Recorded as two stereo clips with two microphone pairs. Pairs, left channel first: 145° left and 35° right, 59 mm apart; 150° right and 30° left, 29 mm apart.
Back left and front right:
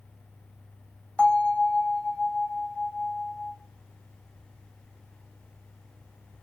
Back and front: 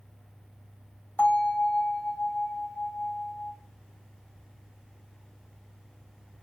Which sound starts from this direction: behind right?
A bell, at 1.2 s.